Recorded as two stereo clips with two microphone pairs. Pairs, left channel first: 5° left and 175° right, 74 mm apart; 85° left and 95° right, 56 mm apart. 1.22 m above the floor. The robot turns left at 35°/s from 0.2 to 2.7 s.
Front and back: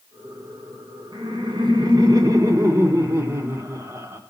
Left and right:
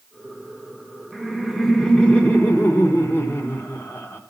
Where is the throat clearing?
No throat clearing in this recording.